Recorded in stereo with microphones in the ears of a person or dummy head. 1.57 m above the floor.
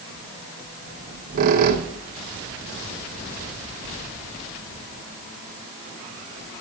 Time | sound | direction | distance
0.9 | a squeak | 45° right (ahead or behind) | 1.1 m